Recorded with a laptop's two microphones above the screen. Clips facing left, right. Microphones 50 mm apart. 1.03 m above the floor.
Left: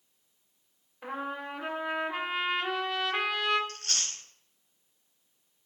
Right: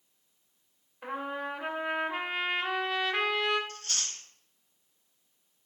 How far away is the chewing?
About 3.5 m.